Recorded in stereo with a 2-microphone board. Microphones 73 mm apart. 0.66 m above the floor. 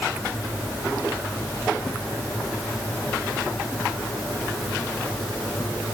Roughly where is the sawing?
I don't hear sawing.